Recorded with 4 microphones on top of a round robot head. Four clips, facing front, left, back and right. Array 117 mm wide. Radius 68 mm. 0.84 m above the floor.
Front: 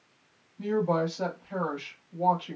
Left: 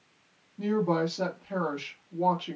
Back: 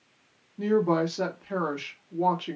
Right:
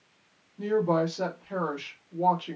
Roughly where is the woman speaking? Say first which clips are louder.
Right 2 dB, back 3 dB; behind.